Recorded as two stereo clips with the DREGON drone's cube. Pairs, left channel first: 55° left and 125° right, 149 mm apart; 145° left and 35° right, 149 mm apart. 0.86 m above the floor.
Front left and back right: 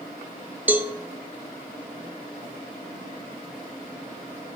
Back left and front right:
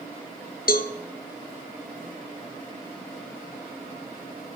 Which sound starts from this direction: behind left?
A cowbell, at 0.7 s.